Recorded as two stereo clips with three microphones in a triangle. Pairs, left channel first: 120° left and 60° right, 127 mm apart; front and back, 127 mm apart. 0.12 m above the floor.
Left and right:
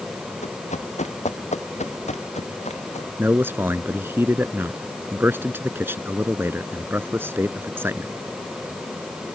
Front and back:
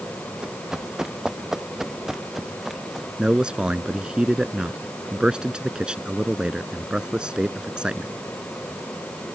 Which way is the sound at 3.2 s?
105° right.